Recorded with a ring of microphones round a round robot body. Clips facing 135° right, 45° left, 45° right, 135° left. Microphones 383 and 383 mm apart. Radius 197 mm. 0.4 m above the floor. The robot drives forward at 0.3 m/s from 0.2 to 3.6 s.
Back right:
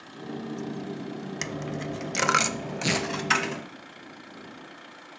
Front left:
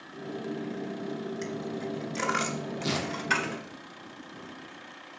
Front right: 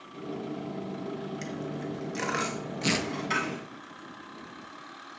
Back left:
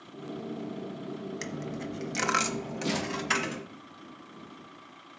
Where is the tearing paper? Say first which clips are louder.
Back right 4 dB, front right 3 dB; 100° right, 1.3 m; by 3.1 s 105° right, 1.3 m.